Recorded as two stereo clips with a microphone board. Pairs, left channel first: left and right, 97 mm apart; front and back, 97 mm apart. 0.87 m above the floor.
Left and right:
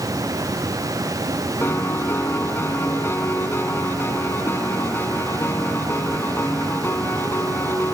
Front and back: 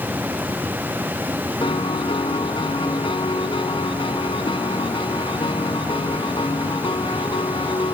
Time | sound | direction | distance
1.6 | a piano | 25° left | ?